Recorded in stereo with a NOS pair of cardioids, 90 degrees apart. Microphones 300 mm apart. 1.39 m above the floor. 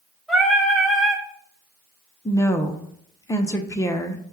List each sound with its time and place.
0.3 s singing: straight ahead, 1.5 m
2.2 s a woman speaking: 10° left, 0.6 m